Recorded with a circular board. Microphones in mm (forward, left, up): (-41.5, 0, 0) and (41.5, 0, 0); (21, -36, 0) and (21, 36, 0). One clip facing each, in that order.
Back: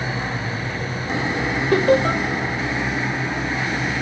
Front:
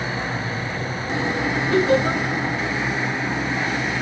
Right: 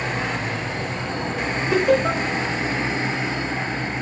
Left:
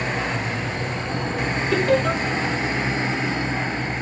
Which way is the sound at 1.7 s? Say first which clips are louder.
Back 2 dB, right 2 dB; 165° right.